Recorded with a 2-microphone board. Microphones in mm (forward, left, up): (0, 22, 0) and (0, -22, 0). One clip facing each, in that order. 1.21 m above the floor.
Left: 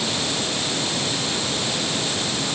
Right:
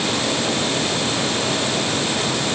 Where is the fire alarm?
I don't hear a fire alarm.